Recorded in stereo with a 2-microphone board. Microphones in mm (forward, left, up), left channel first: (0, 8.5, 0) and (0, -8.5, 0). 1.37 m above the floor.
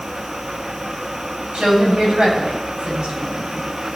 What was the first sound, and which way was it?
A woman speaking, 85° right.